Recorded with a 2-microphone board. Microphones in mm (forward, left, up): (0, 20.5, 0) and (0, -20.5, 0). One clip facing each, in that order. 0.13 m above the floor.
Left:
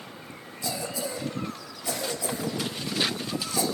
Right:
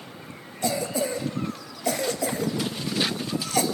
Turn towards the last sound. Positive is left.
turn(degrees=-55)  # may be behind; listen again after turning